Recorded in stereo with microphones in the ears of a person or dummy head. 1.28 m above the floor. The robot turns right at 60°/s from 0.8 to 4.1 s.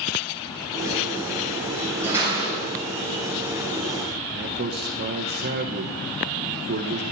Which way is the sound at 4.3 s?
50° right (ahead or behind).